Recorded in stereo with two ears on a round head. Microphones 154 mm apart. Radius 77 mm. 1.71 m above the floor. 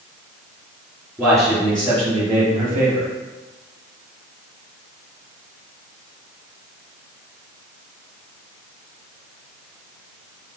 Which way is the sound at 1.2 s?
20° right (ahead or behind).